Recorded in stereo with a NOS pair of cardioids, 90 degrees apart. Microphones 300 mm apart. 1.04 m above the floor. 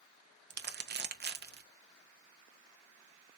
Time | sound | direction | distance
0.5 | crumpling | 35° right | 0.7 m